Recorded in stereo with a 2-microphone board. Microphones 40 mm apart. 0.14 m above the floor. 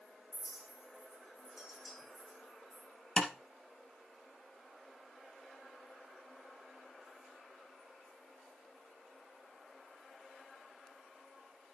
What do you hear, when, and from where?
0.3 s a clink: 10° right (ahead or behind), 6 m
3.2 s tapping: 25° left (ahead or behind), 2.5 m